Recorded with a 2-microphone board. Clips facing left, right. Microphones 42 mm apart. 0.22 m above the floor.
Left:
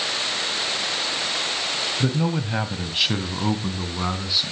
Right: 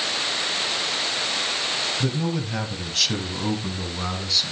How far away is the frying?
I don't hear frying.